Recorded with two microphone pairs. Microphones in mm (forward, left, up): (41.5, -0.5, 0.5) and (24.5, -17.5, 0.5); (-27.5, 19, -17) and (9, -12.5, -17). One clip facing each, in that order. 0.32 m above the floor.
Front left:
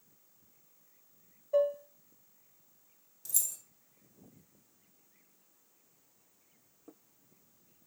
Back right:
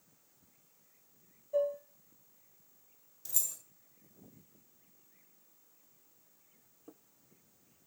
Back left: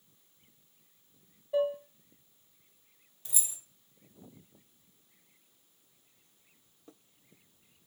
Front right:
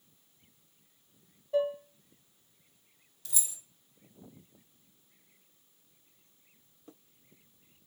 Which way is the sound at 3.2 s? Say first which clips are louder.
Front left 1 dB, even; 165° left.